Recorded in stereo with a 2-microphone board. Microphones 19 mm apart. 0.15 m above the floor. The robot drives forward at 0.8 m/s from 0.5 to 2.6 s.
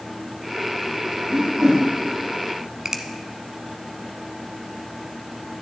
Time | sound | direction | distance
1.3 | a whoosh | 60° right (ahead or behind) | 5.5 m
2.9 | a finger snap | 30° right (ahead or behind) | 0.9 m